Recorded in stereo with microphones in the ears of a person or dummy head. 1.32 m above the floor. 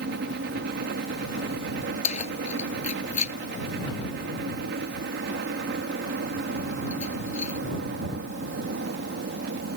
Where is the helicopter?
60° right (ahead or behind).